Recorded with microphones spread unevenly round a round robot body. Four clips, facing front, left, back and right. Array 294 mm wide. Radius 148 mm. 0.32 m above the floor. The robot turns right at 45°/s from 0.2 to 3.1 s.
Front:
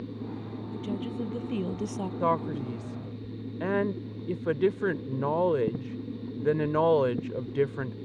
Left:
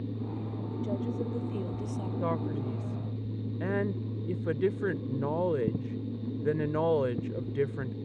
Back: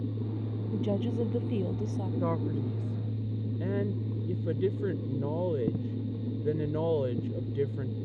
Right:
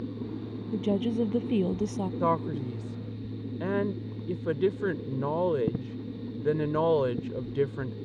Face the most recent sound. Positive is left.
turn(degrees=-15)